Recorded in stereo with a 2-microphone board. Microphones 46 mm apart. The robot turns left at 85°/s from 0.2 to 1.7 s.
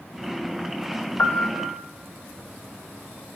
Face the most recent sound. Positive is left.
turn(degrees=85)